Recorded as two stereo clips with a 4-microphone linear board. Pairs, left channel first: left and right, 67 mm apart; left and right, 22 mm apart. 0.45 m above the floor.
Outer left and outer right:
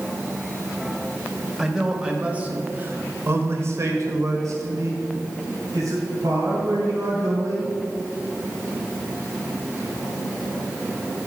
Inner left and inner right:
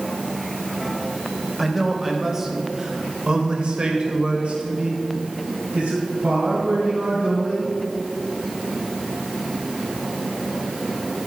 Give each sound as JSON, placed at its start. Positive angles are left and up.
{"t": 1.6, "sound": "a man speaking", "side_deg": -10, "distance_m": 1.7}